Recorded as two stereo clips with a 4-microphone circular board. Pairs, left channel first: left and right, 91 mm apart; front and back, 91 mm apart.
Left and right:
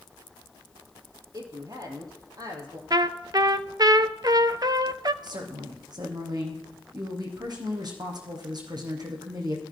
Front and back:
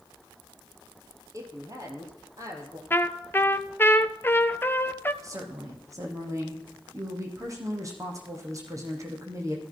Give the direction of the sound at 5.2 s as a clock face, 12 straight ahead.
4 o'clock.